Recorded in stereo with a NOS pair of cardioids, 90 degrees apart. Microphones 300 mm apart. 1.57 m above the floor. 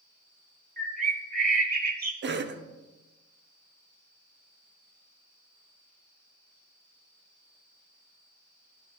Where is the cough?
40° right, 1.0 m.